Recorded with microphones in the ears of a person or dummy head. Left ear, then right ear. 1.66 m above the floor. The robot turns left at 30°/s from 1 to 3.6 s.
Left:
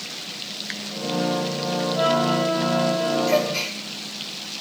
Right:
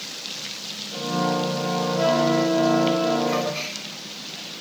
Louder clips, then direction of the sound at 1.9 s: Even; 65° left.